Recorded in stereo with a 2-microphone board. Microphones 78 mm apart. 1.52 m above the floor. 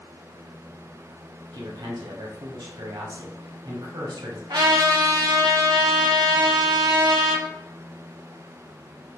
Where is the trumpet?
60° right (ahead or behind), 0.8 m.